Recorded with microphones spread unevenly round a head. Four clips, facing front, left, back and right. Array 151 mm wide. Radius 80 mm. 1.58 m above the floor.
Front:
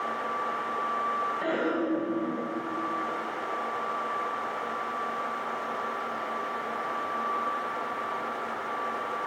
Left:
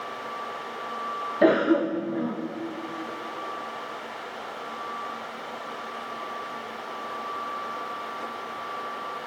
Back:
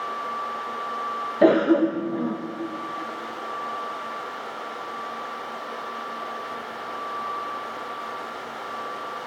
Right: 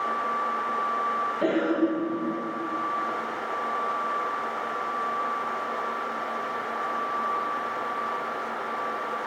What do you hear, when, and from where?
1.4 s a cough: 160° left, 1.8 m